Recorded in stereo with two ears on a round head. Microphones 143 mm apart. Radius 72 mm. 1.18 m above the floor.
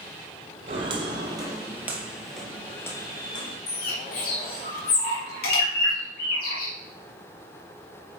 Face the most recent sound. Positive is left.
turn(degrees=60)  # may be behind; listen again after turning